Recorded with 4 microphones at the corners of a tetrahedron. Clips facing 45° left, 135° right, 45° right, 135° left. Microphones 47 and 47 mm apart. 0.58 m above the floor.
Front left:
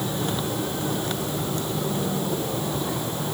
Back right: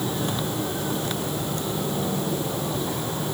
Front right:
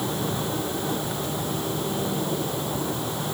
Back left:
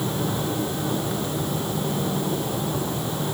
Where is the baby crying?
I don't hear a baby crying.